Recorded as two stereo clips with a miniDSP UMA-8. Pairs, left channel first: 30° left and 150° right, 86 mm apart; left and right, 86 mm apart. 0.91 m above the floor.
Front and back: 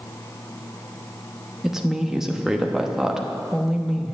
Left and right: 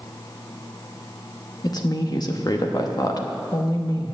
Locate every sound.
1.6 s a woman speaking: 125° left, 1.1 m